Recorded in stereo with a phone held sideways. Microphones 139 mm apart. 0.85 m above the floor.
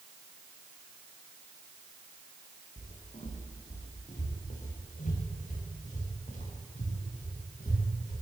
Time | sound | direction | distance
2.8 | footsteps | 55° left (ahead or behind) | 7.5 m